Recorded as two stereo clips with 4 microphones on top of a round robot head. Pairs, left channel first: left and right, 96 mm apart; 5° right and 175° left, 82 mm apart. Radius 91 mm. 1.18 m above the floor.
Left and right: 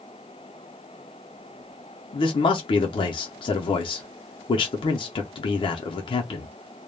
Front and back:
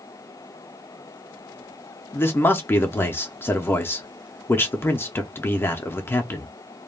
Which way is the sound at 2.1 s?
60° left.